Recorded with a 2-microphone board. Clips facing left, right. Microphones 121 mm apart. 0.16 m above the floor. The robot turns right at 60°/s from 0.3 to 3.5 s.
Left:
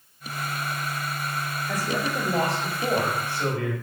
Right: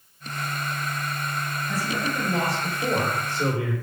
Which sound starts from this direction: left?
A man speaking, at 1.7 s.